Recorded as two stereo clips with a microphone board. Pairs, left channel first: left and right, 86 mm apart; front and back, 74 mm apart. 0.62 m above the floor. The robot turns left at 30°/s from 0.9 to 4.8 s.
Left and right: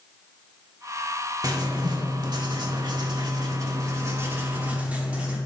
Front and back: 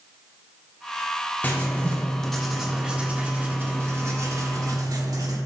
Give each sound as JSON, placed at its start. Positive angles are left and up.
{"t": 1.4, "sound": "writing", "azimuth_deg": -60, "distance_m": 1.2}